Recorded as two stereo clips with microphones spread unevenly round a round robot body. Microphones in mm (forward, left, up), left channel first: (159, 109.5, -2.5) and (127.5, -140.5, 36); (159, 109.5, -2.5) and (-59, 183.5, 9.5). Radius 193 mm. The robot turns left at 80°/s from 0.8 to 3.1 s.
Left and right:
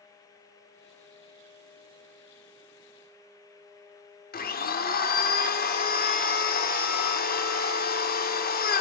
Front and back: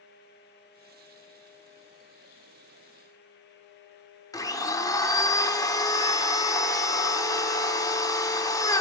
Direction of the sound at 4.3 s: 50° left.